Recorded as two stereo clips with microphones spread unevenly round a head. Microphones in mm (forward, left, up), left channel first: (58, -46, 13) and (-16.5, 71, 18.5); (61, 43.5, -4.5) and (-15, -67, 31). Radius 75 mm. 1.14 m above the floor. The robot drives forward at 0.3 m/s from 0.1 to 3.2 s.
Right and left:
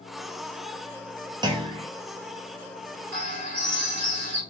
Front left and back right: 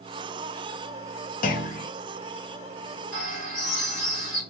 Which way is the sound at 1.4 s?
60° left.